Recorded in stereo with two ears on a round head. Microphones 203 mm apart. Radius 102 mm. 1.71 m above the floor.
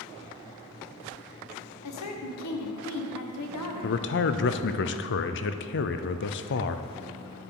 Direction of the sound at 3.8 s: 55° left (ahead or behind).